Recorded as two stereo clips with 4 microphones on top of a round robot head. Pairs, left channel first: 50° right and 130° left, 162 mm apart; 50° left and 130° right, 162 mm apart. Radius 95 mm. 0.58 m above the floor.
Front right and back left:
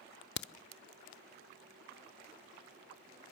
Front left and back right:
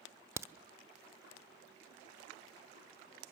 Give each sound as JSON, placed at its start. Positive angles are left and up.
{"t": 0.4, "sound": "a crack", "azimuth_deg": -60, "distance_m": 0.7}